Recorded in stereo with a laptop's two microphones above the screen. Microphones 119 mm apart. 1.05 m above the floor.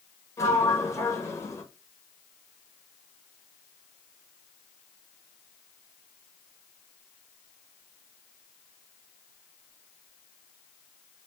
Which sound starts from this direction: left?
A sliding door, at 0.4 s.